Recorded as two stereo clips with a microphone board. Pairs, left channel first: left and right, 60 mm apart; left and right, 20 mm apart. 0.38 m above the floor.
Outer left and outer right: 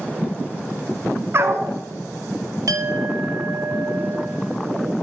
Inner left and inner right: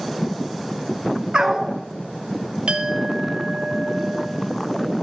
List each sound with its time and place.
1.3 s a dog barking: 45° right (ahead or behind), 1.3 m
2.7 s a clink: 70° right (ahead or behind), 1.3 m